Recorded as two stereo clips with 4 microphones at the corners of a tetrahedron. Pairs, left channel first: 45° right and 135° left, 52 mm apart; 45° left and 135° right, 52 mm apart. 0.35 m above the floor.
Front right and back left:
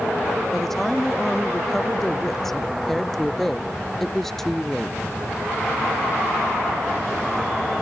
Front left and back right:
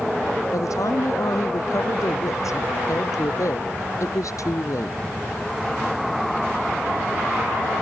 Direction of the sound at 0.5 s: 40° left.